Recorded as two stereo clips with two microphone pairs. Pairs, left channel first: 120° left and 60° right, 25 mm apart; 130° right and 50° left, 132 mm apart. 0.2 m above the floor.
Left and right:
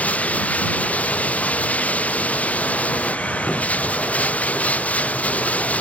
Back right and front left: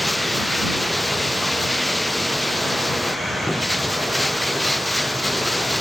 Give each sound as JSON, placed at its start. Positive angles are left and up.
{"t": 0.0, "sound": "running water", "azimuth_deg": 140}